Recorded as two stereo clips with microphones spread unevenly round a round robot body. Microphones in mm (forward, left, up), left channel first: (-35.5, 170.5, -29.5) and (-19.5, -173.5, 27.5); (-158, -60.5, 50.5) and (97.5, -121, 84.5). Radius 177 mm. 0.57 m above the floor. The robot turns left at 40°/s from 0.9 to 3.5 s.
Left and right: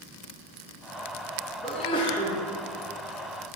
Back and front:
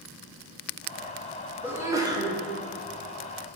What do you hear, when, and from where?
1.6 s a sneeze: 75° left, 0.9 m; by 2.3 s 50° left, 0.9 m